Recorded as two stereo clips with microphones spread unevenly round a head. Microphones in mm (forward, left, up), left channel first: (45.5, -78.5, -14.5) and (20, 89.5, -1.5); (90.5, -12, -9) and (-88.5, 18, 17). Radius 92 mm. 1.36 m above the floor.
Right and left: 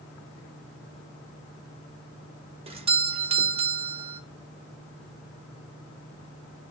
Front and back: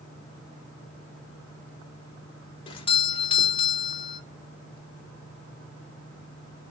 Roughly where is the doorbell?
Ahead left.